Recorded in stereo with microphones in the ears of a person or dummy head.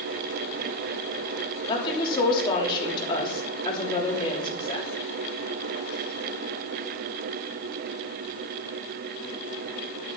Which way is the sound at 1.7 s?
30° left (ahead or behind).